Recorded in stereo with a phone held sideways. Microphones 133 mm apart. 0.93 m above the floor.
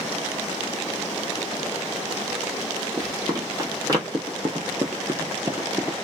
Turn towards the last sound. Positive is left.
turn(degrees=-20)  # may be behind; listen again after turning